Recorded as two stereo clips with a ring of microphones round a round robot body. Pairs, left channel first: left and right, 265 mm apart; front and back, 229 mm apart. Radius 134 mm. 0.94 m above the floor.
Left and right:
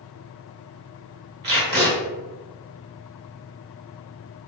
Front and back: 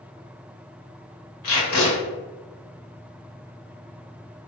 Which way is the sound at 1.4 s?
35° right.